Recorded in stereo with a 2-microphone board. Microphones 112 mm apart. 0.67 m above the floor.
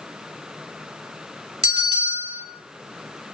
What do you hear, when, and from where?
1.6 s a bell: 70° right (ahead or behind), 1.4 m